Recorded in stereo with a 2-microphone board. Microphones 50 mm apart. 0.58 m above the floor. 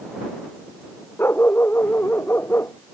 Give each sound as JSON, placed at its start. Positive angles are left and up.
{"t": 1.2, "sound": "a dog barking", "side_deg": 55}